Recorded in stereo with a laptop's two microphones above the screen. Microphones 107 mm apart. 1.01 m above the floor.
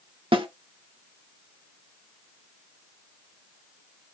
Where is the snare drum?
55° right (ahead or behind), 0.7 m.